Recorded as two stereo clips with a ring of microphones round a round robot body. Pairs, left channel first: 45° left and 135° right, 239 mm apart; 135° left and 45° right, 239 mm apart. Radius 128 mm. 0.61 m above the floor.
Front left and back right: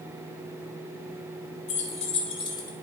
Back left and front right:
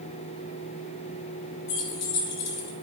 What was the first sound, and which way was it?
Keys jangling, 110° left.